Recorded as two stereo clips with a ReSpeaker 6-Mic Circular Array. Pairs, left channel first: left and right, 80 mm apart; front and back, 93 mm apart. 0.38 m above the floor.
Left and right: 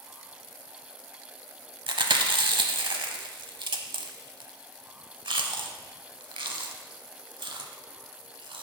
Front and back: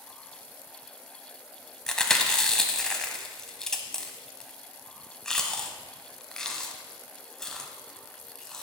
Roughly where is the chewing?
Right.